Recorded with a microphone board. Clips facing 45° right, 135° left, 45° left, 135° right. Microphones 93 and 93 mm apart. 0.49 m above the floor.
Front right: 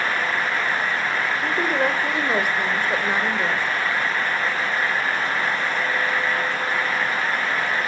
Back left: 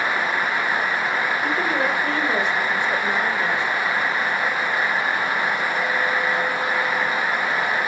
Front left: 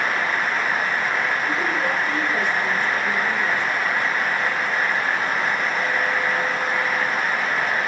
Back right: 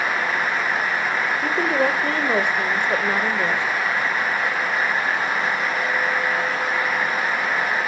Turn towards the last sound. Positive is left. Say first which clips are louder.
# even, back right 3 dB
turn(degrees=-120)